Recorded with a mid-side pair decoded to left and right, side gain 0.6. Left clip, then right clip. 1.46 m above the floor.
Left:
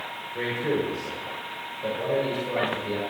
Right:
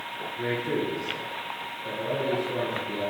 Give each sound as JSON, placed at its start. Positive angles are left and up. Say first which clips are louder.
{"t": 0.3, "sound": "a man speaking", "louder": "left 2 dB", "azimuth_deg": 70, "distance_m": 8.0}